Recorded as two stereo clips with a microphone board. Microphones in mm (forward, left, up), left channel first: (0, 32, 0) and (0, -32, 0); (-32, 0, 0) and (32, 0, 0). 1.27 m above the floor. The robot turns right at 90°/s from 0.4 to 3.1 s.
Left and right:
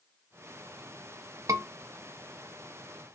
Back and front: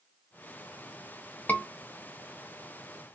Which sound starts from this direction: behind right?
A scream, at 1.5 s.